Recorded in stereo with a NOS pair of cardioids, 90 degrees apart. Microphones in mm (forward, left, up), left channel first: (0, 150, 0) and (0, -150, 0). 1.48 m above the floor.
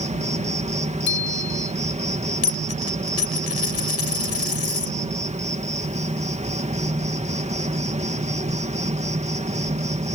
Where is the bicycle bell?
35° left.